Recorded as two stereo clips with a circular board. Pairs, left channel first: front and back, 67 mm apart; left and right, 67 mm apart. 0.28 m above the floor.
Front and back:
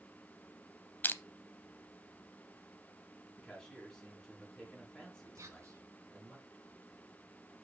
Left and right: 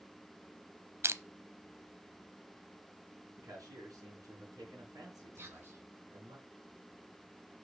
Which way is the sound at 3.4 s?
85° right.